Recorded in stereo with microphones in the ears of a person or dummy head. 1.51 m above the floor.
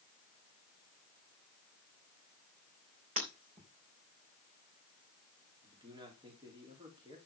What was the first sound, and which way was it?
Breaking glass, 45° right (ahead or behind).